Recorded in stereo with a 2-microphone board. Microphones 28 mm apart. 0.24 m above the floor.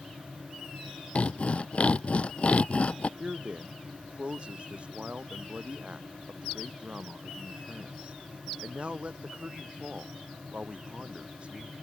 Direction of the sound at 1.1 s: 45° left (ahead or behind).